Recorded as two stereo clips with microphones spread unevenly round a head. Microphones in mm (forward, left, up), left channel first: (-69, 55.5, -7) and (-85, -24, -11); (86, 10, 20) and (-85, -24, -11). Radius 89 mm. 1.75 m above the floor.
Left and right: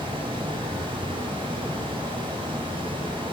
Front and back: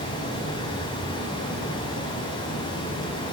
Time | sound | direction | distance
0.0 | running water | 50° right | 4 m